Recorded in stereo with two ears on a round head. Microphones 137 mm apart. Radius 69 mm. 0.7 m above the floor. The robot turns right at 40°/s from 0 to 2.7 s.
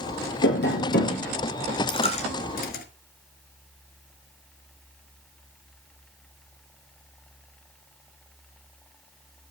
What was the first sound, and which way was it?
Tapping, 90° left.